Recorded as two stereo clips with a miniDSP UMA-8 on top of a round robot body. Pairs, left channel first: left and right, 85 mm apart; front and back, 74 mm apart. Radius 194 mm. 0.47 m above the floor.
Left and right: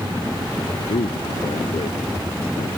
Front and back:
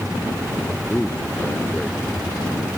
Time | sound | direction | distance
0.9 | a man speaking | 75° left | ?